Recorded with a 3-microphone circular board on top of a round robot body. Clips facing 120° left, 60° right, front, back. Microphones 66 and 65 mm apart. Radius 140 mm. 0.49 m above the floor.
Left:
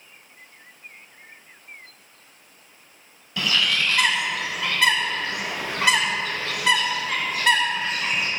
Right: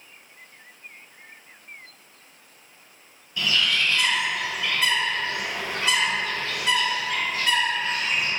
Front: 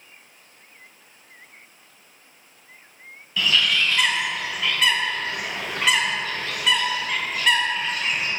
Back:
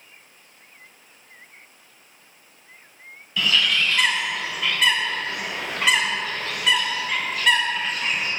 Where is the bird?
90° left, 1.9 m.